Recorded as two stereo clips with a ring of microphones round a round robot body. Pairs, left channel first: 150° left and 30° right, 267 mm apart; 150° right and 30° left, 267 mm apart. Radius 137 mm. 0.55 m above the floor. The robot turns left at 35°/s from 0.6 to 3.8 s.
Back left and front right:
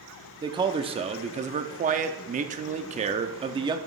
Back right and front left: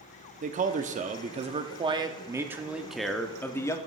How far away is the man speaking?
About 0.7 m.